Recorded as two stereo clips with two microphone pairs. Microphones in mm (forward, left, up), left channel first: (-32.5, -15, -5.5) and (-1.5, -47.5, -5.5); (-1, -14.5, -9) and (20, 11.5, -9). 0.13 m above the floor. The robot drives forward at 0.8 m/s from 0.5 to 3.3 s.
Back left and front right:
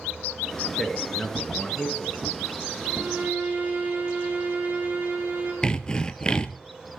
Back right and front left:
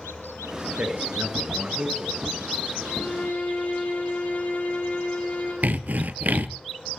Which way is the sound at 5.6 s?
70° left.